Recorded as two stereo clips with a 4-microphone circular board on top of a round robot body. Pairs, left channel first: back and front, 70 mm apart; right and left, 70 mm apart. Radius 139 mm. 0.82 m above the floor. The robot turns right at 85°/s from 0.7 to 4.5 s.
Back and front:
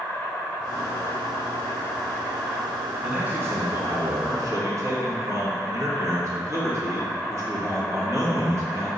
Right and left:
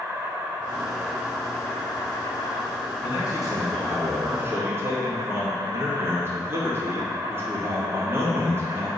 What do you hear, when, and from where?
0.0 s an insect: 110° left, 2 m; by 9.0 s 70° left, 2 m
3.0 s a man speaking: 90° right, 2 m; by 8.9 s 40° left, 2 m